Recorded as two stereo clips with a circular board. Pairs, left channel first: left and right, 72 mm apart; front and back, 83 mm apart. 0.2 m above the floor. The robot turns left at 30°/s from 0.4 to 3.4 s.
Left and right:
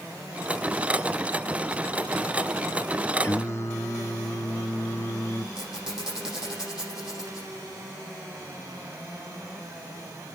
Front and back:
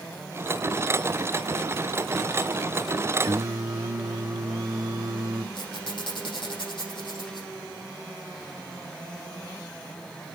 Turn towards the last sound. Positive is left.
turn(degrees=-5)